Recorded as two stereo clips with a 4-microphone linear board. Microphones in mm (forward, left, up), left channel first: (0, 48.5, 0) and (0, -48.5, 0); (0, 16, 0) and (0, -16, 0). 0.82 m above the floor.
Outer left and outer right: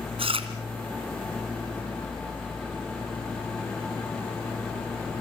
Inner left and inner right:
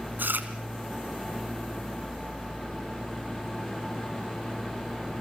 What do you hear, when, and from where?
0.2 s chewing: 75° right (ahead or behind), 3 m